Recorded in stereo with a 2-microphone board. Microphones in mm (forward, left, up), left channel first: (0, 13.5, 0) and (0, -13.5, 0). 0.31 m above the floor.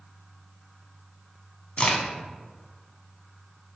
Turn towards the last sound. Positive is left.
turn(degrees=45)  # may be behind; listen again after turning